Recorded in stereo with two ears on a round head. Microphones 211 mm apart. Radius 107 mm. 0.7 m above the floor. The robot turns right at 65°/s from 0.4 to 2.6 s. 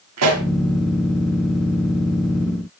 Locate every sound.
0.2 s a pop: 75° right (ahead or behind), 1.5 m; by 0.5 s 70° right (ahead or behind), 1.5 m